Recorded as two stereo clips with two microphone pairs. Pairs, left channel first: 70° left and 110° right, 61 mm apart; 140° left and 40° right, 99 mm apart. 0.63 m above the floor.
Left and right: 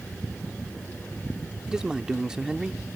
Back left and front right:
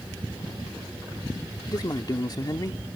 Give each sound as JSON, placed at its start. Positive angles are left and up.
{"t": 1.7, "sound": "a man speaking", "azimuth_deg": 175}